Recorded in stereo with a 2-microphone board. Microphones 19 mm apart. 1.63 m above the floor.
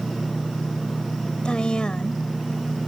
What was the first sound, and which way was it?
A woman speaking, 40° left (ahead or behind).